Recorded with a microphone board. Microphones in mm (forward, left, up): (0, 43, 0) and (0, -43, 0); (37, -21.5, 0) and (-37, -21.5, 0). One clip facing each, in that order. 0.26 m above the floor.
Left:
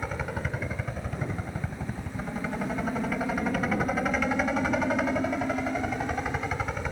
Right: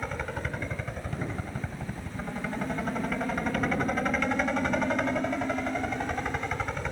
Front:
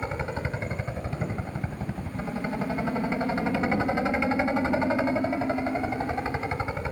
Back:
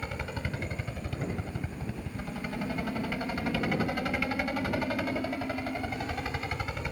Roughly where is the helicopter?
Ahead.